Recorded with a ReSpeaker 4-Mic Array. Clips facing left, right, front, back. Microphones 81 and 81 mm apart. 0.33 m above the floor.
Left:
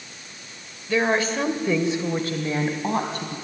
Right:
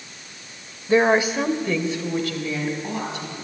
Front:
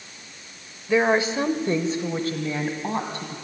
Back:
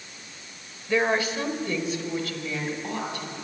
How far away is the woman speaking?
About 1.1 m.